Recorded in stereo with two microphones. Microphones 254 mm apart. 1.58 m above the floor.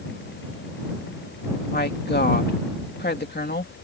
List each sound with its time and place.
1.7 s a woman speaking: 40° left (ahead or behind)